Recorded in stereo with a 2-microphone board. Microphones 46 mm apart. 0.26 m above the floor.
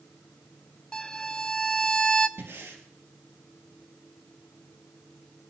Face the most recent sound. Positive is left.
turn(degrees=-80)